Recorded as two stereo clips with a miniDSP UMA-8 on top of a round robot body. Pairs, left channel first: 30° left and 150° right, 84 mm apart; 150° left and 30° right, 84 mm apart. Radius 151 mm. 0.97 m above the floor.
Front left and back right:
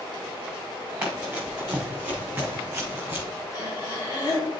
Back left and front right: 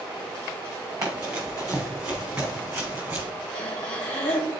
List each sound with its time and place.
1.0 s running footsteps: 70° right, 4 m; by 3.2 s 90° right, 3.5 m
3.5 s breathing: 75° left, 1.7 m